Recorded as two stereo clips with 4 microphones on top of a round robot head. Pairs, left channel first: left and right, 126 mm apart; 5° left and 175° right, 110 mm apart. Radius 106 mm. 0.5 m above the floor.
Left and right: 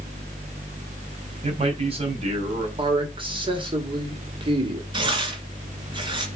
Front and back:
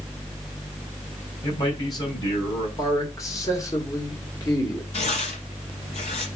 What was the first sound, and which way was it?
A man speaking, 50° right.